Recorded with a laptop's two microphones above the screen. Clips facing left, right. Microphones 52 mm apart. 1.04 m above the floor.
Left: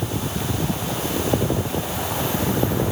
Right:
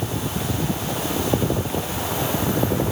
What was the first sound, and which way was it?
Only background noise.